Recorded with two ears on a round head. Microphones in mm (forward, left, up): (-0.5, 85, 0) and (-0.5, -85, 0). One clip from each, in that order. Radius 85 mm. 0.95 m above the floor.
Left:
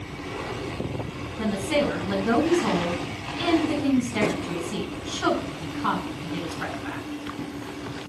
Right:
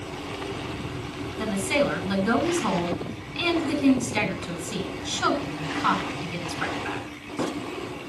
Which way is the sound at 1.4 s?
70° right (ahead or behind).